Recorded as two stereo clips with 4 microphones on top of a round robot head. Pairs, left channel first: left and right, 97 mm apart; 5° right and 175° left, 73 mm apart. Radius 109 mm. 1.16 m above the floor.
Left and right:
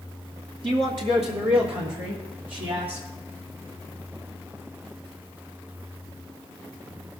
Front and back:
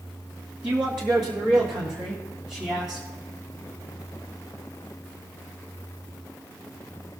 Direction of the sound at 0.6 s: 110° right.